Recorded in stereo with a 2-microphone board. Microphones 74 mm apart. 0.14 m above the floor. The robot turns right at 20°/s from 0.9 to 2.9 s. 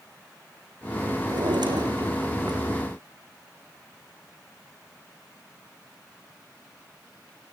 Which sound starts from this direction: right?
A drawer, at 1.3 s.